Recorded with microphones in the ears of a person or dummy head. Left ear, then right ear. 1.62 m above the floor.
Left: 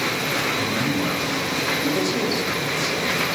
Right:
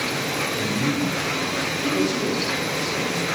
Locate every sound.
0.6 s a man speaking: 45° left (ahead or behind), 7 m; by 3.2 s 50° left (ahead or behind), 10.5 m